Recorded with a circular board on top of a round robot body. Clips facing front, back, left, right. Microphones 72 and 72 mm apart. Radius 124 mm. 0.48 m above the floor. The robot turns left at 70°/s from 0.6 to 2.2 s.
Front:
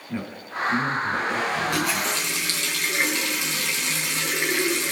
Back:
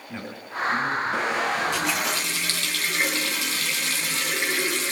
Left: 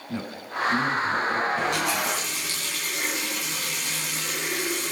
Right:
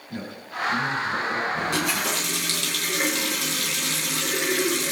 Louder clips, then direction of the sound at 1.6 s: Front 1 dB, even; 25° right.